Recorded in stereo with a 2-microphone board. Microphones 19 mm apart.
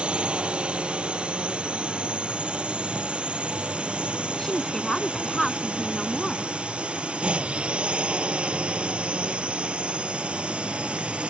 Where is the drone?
70° right (ahead or behind); by 11.3 s 80° right.